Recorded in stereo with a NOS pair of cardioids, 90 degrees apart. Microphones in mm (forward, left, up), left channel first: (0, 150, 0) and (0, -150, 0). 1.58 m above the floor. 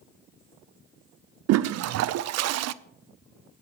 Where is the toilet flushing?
60° right, 0.5 m.